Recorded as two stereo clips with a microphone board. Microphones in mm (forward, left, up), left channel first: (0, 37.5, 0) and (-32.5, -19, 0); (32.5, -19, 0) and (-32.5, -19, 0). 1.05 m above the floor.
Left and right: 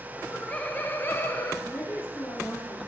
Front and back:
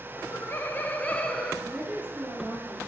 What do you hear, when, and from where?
0.2 s laughter: 10° right, 0.9 m; by 1.5 s 70° left, 0.9 m
1.6 s a woman speaking: 110° left, 3 m